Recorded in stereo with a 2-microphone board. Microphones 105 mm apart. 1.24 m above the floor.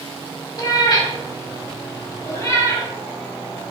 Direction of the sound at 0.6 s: 40° left (ahead or behind).